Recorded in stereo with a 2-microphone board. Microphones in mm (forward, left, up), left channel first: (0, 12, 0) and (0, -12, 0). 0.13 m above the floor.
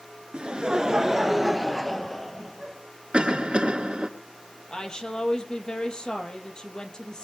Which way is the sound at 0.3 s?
45° right (ahead or behind).